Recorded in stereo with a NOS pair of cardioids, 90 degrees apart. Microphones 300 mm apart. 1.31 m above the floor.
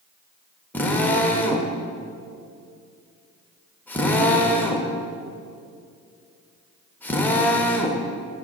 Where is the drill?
5° left, 1.4 m.